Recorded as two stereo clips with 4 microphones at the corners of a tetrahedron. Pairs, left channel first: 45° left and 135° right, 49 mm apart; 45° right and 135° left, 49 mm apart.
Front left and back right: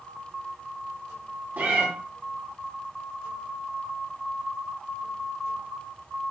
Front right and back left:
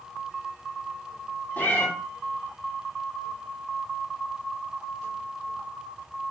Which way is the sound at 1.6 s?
90° right.